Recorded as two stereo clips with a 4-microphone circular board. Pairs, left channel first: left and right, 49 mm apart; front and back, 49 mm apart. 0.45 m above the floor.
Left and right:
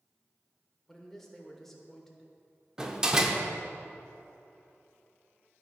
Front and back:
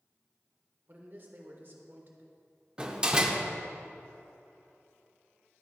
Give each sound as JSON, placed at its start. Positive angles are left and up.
{"t": 0.9, "sound": "a man speaking", "azimuth_deg": 170, "distance_m": 1.3}
{"t": 2.8, "sound": "a door slam", "azimuth_deg": -140, "distance_m": 0.7}